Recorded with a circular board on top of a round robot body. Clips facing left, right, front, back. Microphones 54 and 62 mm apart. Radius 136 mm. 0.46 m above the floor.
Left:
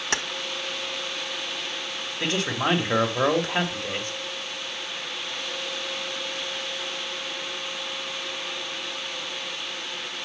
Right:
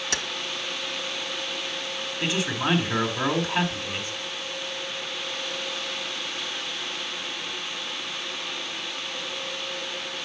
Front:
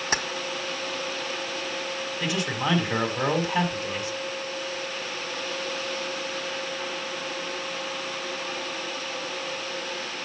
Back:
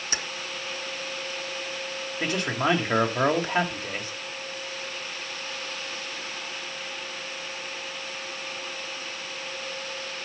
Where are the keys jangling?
45° left, 1.3 m.